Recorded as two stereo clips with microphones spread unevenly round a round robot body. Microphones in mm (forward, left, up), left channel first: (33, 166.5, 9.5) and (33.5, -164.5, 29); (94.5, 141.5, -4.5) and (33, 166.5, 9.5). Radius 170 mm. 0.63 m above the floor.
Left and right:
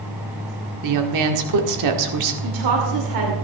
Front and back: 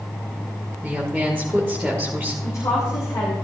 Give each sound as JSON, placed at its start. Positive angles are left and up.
{"t": 0.8, "sound": "a woman speaking", "azimuth_deg": -120, "distance_m": 1.6}
{"t": 2.4, "sound": "a woman speaking", "azimuth_deg": -70, "distance_m": 2.5}